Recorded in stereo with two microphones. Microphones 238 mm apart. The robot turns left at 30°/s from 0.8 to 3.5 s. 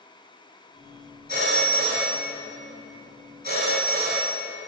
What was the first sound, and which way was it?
A phone ringing, 45° right (ahead or behind).